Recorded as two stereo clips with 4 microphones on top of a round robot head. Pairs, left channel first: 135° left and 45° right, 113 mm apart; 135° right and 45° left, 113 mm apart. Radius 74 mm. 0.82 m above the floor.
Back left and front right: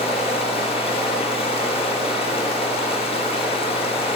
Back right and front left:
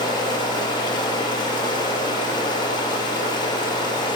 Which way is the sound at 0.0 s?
170° left.